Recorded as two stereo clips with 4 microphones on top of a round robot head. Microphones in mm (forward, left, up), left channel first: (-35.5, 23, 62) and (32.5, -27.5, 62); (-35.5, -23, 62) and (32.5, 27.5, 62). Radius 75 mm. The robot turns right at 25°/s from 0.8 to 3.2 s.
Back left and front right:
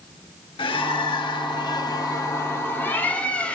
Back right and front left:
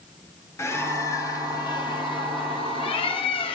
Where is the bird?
160° left, 1.7 m; by 3.6 s 140° right, 1.7 m.